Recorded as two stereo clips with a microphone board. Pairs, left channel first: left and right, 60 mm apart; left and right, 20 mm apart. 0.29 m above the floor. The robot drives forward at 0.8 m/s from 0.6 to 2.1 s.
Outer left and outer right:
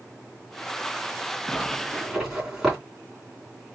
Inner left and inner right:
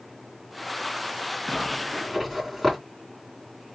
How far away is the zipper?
About 2 m.